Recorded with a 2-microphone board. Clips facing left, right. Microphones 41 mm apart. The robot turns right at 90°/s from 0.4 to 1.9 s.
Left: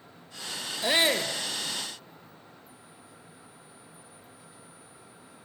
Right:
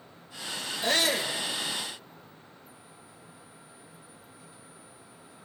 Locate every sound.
0.8 s a shout: 5° left, 3 m; by 1.3 s 55° left, 3 m